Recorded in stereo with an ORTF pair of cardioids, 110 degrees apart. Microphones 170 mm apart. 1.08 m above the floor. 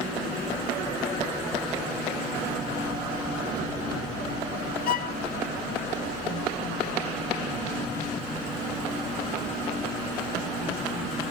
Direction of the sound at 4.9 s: 65° left.